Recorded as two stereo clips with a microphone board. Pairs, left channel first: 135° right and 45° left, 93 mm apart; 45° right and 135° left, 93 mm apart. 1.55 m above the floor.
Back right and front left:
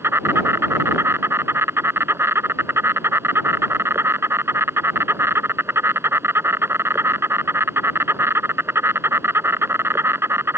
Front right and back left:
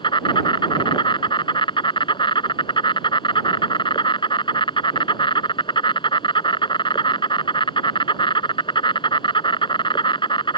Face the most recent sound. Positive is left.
turn(degrees=-20)